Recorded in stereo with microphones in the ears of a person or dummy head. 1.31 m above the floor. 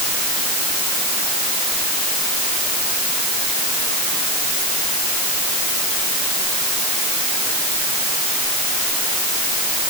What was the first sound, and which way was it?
Only background noise.